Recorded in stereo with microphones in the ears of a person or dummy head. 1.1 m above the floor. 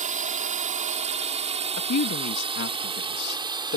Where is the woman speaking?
60° left (ahead or behind).